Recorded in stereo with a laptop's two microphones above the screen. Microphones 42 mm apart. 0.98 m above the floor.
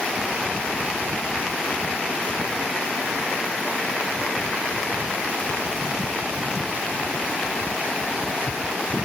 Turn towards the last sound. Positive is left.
No sound to turn to.